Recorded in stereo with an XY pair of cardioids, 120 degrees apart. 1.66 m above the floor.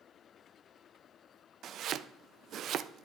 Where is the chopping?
55° right, 0.5 m.